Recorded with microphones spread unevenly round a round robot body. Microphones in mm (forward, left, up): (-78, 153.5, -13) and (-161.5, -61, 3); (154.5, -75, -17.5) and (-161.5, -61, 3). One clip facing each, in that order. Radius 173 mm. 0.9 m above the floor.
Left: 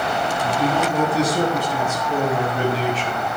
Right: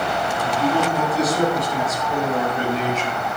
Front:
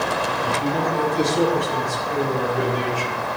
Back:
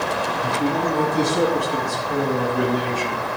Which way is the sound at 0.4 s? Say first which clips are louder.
Right 1 dB, back 2 dB; 130° left.